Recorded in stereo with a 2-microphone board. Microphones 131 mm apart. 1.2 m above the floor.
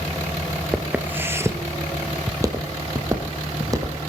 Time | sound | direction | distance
0.7 | footsteps | 5° right (ahead or behind) | 1.2 m